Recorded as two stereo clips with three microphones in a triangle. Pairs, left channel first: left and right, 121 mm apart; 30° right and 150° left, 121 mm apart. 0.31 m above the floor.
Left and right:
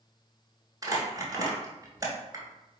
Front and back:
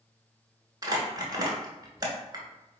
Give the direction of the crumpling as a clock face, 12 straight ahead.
5 o'clock.